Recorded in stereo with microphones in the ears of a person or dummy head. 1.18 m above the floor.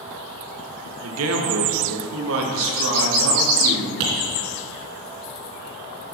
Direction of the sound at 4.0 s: 70° right (ahead or behind).